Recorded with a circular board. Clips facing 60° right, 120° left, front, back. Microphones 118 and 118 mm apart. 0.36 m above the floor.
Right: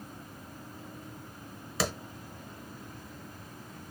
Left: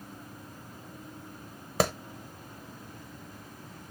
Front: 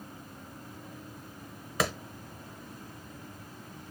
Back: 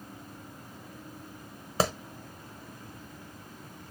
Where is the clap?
130° left, 0.9 m.